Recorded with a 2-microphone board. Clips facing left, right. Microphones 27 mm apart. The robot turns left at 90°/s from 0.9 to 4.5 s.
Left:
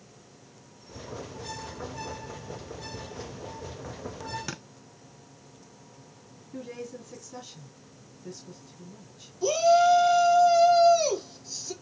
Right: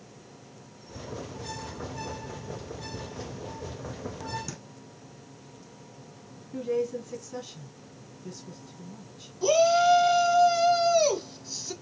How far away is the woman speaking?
About 2 m.